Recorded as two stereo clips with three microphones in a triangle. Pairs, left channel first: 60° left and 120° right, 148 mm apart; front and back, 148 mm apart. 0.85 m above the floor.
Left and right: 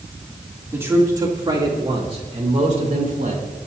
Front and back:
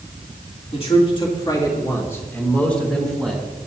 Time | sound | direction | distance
0.7 | a man speaking | 45° right | 2.5 m